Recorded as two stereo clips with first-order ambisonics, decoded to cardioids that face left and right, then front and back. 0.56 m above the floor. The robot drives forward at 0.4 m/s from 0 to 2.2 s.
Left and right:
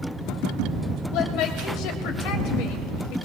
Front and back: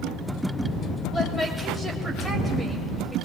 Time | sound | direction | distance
1.1 | a woman speaking | 70° left | 2 m